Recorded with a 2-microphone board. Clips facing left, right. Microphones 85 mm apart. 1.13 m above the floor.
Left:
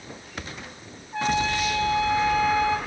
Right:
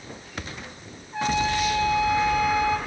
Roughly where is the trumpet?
Left.